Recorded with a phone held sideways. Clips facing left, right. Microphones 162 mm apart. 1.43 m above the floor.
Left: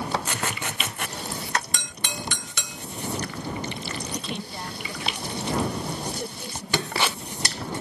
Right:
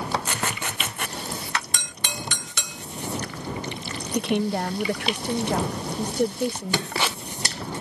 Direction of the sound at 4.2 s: 60° right (ahead or behind).